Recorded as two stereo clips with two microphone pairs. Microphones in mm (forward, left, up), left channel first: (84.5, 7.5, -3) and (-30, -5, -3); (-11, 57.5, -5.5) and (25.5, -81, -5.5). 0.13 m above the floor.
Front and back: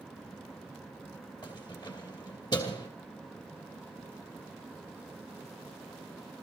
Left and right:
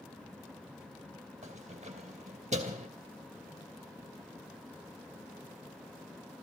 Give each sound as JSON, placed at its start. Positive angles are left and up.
{"t": 1.4, "sound": "keys jangling", "azimuth_deg": -40, "distance_m": 2.5}